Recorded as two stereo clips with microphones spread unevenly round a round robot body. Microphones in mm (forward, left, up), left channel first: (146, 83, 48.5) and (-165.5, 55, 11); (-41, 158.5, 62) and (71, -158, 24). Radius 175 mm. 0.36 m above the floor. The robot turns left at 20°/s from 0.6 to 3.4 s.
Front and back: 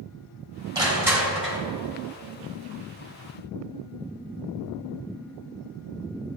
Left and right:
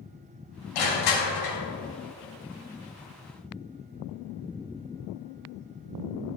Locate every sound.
0.8 s crushing: 115° left, 3.5 m; by 1.6 s 95° left, 3.5 m